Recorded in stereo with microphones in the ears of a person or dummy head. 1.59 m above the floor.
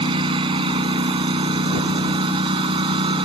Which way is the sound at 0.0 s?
25° right (ahead or behind).